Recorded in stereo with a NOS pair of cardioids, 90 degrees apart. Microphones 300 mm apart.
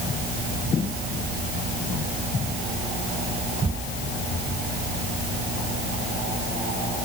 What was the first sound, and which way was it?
Only background noise.